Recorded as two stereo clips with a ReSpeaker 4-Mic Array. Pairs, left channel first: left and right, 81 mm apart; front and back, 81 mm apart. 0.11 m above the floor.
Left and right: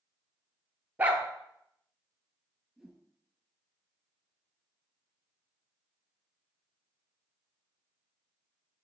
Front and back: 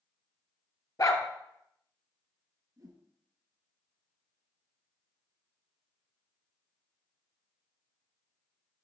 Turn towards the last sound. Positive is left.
turn(degrees=180)